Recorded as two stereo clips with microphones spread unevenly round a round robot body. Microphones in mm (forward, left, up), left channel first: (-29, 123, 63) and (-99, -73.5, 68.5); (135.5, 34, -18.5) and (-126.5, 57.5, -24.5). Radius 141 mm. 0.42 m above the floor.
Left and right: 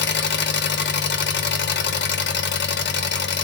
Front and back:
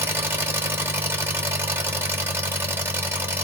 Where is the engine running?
95° left, 0.9 m.